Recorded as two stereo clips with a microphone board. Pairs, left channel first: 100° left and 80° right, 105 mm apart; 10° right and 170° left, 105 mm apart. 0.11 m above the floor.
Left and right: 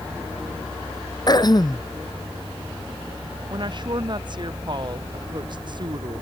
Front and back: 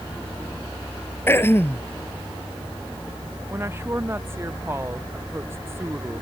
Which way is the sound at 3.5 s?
125° right.